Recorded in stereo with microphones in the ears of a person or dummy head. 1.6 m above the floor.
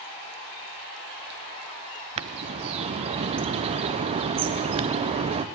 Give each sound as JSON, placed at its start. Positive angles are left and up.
{"t": 2.2, "sound": "a bird", "side_deg": -25, "distance_m": 0.5}